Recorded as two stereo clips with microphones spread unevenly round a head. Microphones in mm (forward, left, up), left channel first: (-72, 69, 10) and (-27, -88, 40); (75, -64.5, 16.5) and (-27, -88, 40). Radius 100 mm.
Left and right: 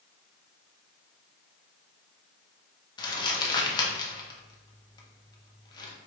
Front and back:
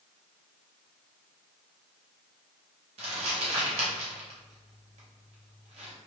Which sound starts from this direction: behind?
Crumpling, at 3.0 s.